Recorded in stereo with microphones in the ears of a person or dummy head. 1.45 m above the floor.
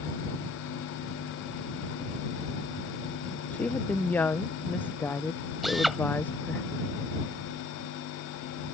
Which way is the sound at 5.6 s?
5° right (ahead or behind).